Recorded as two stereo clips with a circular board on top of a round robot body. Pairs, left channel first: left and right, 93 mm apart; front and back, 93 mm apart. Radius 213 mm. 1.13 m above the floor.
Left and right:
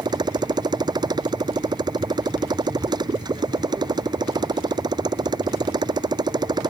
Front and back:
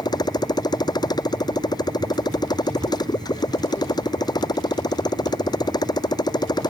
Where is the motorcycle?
45° right.